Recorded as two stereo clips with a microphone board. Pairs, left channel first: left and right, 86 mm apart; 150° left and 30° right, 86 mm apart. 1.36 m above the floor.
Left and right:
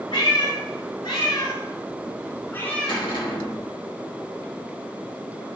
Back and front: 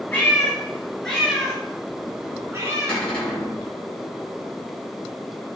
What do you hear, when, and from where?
0.1 s a cat meowing: 80° left, 4.5 m; by 3.0 s 5° left, 2.5 m
2.9 s a cupboard door: 75° left, 4 m